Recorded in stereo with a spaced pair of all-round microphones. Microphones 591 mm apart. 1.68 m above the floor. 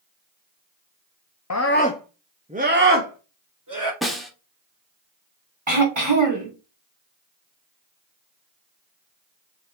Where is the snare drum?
Centre (ahead or behind), 1.4 m.